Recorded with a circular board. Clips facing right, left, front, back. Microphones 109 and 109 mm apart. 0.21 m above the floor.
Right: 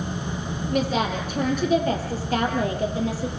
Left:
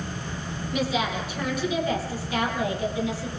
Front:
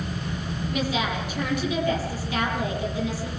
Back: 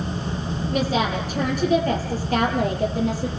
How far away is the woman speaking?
About 7.5 m.